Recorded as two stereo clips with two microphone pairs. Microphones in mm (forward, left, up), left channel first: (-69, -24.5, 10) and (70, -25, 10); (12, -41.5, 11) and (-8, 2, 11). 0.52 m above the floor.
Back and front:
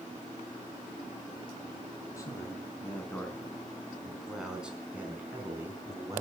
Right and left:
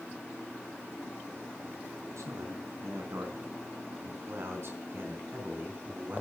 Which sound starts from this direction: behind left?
A man speaking, at 2.2 s.